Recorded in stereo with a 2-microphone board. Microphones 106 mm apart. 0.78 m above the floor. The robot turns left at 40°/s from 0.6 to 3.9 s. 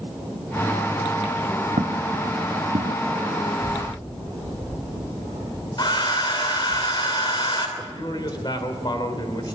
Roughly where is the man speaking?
Left.